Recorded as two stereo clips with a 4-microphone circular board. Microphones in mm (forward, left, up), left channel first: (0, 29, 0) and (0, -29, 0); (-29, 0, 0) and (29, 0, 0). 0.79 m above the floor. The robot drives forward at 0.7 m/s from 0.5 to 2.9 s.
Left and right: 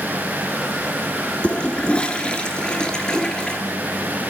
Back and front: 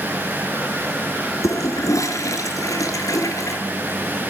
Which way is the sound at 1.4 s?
160° left.